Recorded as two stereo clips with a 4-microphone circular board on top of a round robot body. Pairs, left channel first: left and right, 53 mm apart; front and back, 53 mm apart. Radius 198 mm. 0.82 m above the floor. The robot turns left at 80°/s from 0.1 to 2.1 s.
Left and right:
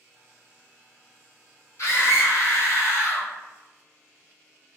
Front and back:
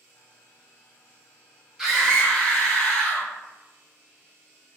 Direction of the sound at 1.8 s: 100° left.